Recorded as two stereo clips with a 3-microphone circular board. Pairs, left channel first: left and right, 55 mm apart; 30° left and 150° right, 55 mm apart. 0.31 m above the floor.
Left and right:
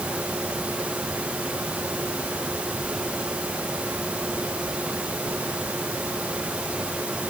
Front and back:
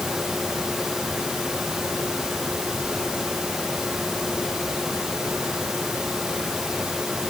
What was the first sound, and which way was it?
Only background noise.